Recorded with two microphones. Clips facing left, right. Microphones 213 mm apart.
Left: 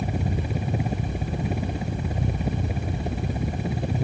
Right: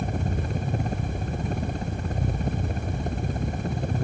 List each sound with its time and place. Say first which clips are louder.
0.0 s a helicopter: left 1 dB; 5° left (ahead or behind)